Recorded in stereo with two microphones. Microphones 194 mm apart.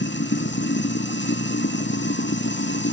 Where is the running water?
70° left (ahead or behind), 1.4 m.